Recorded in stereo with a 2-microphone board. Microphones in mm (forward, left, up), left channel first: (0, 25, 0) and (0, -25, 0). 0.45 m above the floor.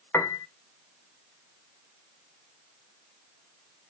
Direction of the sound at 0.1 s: 55° left (ahead or behind).